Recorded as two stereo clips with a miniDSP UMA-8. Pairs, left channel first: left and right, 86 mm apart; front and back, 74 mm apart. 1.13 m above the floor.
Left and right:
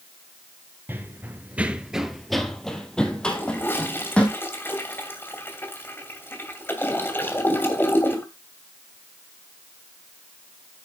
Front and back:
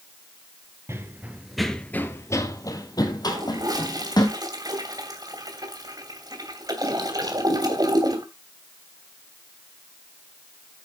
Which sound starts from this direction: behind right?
Running footsteps, at 0.9 s.